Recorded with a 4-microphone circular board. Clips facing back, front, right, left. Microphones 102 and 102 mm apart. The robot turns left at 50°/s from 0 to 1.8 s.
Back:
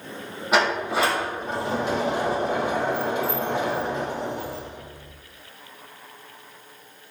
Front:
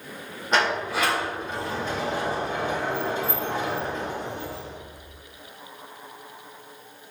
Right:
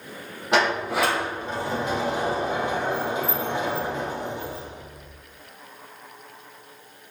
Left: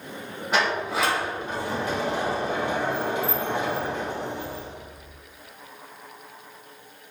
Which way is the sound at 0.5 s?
95° right.